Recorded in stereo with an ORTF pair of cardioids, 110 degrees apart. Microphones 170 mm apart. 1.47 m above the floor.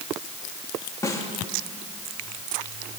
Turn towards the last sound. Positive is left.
turn(degrees=20)